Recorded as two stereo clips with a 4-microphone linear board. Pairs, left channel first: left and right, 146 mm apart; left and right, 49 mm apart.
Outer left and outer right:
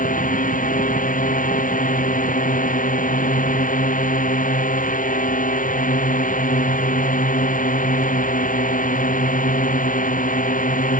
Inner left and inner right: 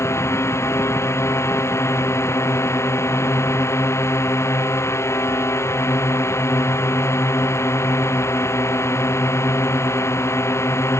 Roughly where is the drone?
Left.